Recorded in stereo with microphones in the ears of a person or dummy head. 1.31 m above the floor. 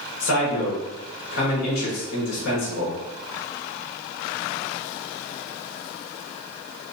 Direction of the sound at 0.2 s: 85° left.